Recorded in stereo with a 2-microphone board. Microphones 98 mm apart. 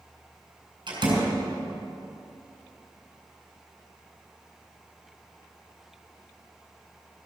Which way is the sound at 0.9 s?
55° right (ahead or behind).